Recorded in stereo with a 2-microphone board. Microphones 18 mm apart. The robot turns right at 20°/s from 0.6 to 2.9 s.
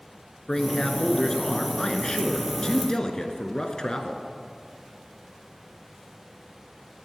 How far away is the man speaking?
About 1.4 m.